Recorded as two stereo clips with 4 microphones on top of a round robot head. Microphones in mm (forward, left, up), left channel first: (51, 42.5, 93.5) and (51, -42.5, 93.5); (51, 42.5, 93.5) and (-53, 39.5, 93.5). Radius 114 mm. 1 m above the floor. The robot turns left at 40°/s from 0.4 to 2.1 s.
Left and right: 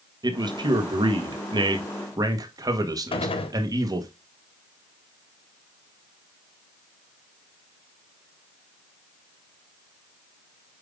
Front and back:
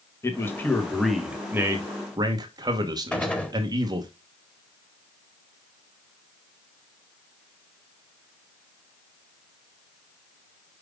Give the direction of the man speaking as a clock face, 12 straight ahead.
2 o'clock.